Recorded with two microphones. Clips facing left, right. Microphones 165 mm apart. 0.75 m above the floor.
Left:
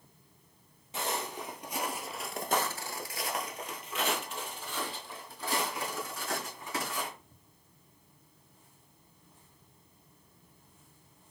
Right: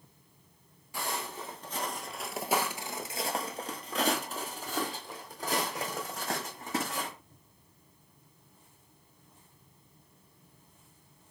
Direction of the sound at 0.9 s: 20° left (ahead or behind).